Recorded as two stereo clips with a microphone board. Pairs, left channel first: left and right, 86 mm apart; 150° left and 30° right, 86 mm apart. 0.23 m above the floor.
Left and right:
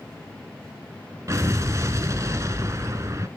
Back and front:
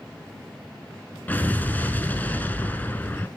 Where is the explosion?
140° right, 0.9 m.